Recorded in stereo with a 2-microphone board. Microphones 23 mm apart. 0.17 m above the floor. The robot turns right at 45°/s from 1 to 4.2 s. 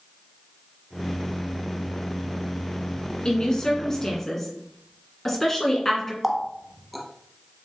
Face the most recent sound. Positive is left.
turn(degrees=0)  # may be behind; listen again after turning